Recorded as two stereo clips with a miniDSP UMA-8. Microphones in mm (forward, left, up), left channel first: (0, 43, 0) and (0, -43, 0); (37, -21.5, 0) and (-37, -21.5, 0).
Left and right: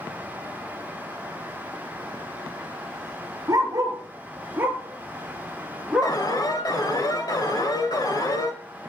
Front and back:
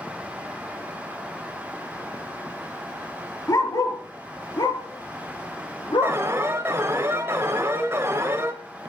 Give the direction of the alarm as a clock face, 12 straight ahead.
8 o'clock.